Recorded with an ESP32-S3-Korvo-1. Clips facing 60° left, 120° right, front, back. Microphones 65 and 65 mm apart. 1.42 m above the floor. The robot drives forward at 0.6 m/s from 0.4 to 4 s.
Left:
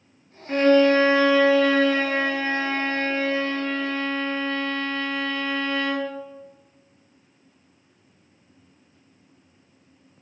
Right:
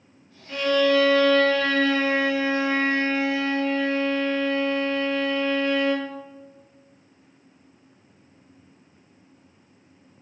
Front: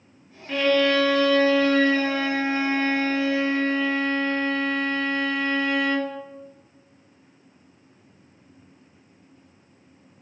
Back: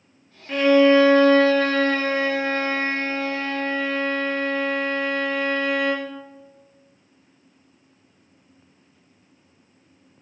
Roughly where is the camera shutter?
I don't hear a camera shutter.